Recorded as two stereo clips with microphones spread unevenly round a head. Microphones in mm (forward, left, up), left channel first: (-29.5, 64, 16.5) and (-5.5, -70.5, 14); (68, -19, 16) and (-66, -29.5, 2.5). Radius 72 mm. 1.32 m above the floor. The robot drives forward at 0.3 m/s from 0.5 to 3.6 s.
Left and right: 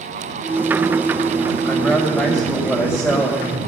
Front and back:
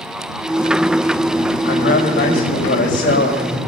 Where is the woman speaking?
15° left, 5 m.